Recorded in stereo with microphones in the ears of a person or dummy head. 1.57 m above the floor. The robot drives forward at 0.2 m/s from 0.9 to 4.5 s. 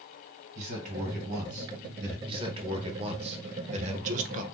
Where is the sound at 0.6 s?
45° right (ahead or behind), 1.7 m; by 2.2 s 50° right (ahead or behind), 1.5 m.